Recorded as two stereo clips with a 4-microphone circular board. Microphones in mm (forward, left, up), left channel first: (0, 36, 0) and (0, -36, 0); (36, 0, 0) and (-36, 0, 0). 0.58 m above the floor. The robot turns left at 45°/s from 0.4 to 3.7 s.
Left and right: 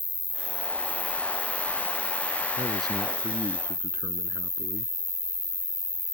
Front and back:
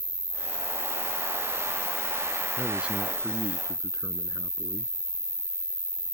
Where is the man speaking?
95° right; by 4.9 s 145° right.